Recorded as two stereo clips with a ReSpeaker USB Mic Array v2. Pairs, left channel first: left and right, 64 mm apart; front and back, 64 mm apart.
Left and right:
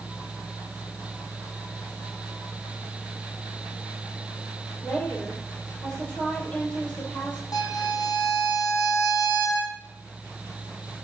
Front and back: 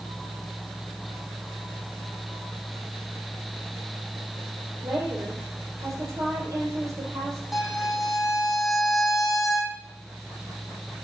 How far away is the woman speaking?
About 5.5 m.